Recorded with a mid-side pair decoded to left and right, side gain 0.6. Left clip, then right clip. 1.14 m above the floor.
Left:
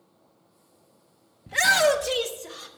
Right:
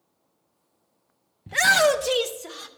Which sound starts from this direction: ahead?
A shout, at 1.5 s.